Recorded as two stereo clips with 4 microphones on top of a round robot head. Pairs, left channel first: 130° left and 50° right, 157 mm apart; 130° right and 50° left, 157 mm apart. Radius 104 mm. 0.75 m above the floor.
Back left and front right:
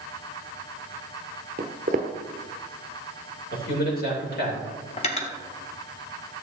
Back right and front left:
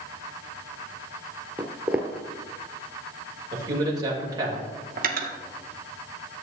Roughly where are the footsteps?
Ahead right.